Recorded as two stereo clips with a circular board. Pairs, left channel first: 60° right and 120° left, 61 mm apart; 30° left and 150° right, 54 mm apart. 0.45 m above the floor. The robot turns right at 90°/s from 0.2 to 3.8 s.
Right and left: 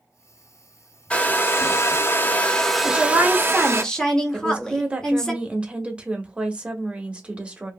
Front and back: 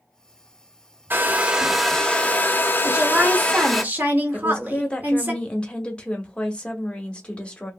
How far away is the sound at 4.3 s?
About 0.7 m.